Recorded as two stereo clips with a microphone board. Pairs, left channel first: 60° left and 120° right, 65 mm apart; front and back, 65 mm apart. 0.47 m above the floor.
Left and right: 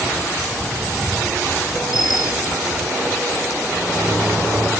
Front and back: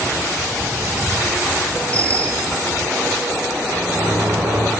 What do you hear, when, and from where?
1.9 s a bicycle bell: 70° left, 3.5 m
3.7 s a sliding door: 165° left, 8.5 m